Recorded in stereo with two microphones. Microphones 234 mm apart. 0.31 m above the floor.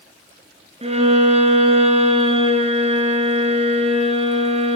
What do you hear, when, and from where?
0.8 s a violin: 25° right (ahead or behind), 1.8 m